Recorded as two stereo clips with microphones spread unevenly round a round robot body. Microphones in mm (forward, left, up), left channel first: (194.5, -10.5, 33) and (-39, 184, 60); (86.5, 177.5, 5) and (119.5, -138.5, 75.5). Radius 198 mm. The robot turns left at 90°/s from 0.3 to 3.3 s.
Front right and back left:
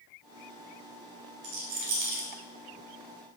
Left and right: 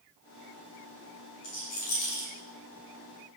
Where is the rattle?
175° left, 2 m; by 2.3 s 100° left, 2 m.